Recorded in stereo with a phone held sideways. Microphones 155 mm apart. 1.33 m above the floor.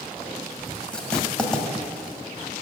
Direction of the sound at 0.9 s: 5° left (ahead or behind).